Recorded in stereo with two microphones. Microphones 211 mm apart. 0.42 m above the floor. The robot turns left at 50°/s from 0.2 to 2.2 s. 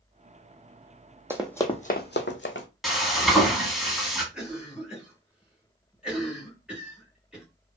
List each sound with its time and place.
1.3 s running footsteps: 10° right (ahead or behind), 0.7 m; by 2.7 s 65° left (ahead or behind), 0.9 m
2.8 s frying: centre (ahead or behind), 1.0 m
4.3 s a cough: 5° right (ahead or behind), 1.8 m